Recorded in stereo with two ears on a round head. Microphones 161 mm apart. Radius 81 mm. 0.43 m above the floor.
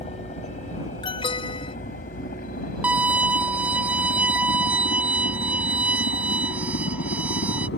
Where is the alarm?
30° left (ahead or behind).